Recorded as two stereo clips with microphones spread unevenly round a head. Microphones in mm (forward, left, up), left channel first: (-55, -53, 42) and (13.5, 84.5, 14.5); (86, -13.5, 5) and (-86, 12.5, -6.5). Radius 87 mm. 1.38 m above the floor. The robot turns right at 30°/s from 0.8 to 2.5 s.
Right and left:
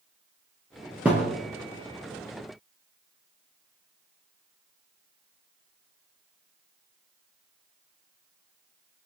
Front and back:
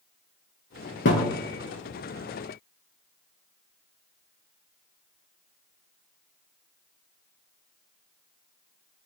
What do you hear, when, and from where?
1.1 s a thud: 25° right, 4 m; by 1.4 s 15° right, 4 m